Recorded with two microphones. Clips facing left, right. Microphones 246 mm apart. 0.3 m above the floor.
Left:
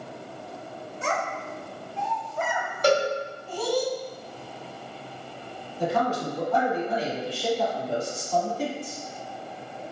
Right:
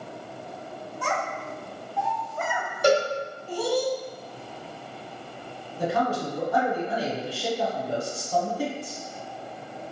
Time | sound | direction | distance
1.0 | a child speaking | 25° left (ahead or behind) | 0.9 m
2.8 | a cowbell | 10° right (ahead or behind) | 1.3 m
5.8 | a man speaking | 10° right (ahead or behind) | 1.6 m